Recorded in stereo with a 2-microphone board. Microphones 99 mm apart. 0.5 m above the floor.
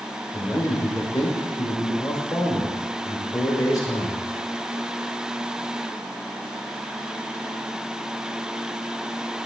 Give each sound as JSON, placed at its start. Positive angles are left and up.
{"t": 0.3, "sound": "a man speaking", "side_deg": 35, "distance_m": 1.4}